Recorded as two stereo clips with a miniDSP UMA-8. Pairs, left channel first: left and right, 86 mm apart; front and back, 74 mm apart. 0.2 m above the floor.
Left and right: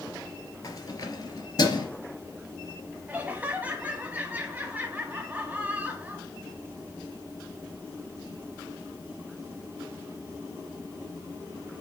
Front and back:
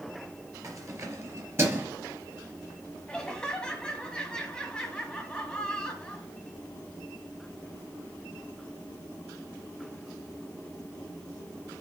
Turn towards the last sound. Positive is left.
turn(degrees=-60)